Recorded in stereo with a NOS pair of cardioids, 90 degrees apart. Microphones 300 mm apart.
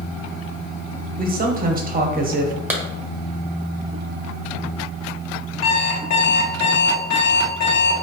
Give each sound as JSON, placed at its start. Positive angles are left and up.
{"t": 1.2, "sound": "a man speaking", "azimuth_deg": -30, "distance_m": 1.3}
{"t": 2.7, "sound": "a clap", "azimuth_deg": -5, "distance_m": 1.2}
{"t": 5.6, "sound": "an alarm clock", "azimuth_deg": 65, "distance_m": 1.9}